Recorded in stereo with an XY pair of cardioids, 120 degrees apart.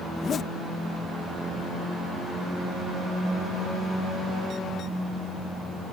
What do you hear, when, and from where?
0.1 s a zipper: 45° left